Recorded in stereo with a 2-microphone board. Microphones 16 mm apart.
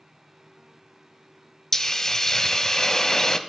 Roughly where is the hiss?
Left.